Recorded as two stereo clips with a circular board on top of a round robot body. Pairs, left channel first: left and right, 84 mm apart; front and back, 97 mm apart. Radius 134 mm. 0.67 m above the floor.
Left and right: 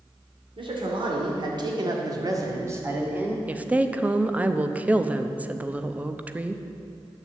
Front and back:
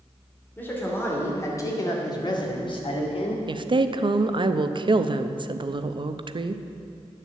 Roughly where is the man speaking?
Right.